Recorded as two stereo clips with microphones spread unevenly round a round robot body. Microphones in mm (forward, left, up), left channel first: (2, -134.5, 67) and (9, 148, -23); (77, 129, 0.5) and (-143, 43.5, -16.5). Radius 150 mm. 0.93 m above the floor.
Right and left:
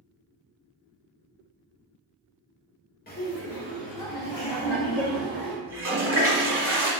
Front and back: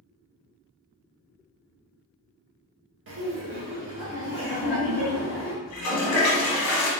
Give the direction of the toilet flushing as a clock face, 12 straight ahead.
11 o'clock.